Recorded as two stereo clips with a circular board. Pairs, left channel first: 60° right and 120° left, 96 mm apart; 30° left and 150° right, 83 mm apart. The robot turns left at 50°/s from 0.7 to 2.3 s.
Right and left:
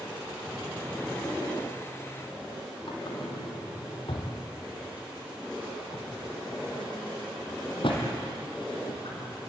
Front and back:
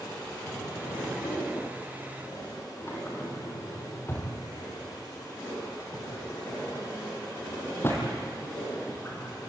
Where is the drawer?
50° left, 4 m; by 9.5 s 30° right, 4 m.